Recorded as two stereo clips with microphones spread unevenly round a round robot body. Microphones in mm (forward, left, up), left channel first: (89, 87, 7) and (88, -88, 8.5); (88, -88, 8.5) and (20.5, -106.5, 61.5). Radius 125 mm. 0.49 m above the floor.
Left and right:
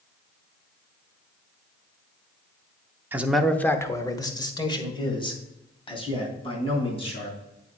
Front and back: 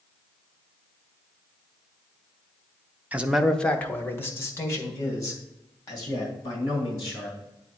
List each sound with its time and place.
3.1 s a man speaking: 25° right, 0.7 m; by 7.4 s 30° left, 4.5 m